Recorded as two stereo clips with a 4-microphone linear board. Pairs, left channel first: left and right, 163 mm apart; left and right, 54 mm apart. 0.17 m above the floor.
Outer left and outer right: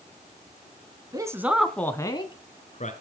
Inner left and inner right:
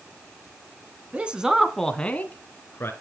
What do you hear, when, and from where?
1.1 s a man speaking: 25° right (ahead or behind), 1.9 m; by 2.9 s 50° left (ahead or behind), 2.5 m